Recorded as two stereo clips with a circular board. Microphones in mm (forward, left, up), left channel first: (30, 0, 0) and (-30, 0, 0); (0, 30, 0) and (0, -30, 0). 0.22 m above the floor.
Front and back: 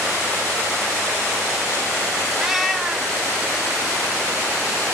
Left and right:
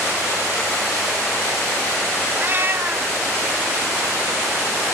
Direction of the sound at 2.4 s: 95° right.